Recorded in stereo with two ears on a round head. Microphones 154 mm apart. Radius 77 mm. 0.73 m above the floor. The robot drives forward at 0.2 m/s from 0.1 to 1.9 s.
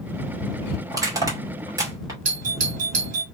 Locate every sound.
0.9 s crushing: 20° right (ahead or behind), 2.5 m
2.2 s a doorbell: 45° right (ahead or behind), 1.6 m